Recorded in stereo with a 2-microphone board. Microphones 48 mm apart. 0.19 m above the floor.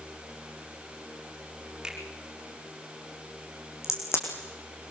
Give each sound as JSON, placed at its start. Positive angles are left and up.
{"t": 1.8, "sound": "a finger snap", "side_deg": -15, "distance_m": 7.0}
{"t": 3.8, "sound": "a crack", "side_deg": 75, "distance_m": 6.0}